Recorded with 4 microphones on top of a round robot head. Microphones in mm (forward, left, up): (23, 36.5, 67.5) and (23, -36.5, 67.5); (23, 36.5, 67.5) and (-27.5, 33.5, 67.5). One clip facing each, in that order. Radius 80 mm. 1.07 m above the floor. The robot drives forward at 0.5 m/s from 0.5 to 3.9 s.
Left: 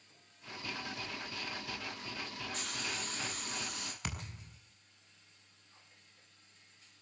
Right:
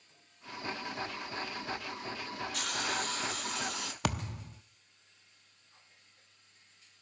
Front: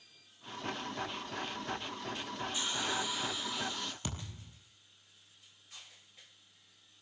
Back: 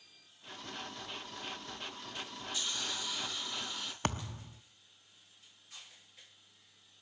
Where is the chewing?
I don't hear chewing.